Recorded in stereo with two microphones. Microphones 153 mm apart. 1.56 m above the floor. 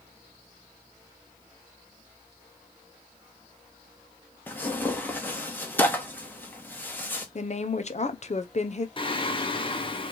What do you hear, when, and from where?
4.5 s tearing paper: 15° left (ahead or behind), 1.2 m
7.3 s a woman speaking: 50° left (ahead or behind), 0.7 m
9.0 s singing: 35° left (ahead or behind), 0.8 m